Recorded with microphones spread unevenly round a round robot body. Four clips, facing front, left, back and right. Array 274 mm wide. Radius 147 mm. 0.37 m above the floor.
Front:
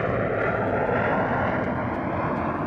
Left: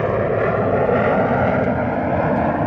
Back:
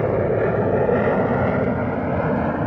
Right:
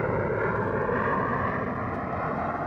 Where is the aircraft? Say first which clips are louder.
Left 8 dB, back 5 dB; 140° left; by 2.7 s 125° left.